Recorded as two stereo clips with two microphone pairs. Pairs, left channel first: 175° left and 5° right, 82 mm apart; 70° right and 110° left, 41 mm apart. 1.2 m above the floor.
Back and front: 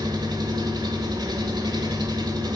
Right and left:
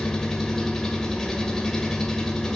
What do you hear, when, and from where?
0.0 s an engine running: 10° left, 1.6 m